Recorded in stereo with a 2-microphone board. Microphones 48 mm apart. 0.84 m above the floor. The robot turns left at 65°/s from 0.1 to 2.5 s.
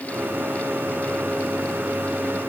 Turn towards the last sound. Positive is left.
No sound to turn to.